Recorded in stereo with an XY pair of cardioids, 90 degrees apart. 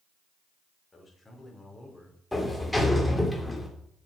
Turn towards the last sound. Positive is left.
turn(degrees=10)